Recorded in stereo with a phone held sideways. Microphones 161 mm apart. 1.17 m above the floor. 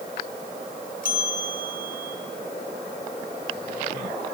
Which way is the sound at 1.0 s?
60° left (ahead or behind).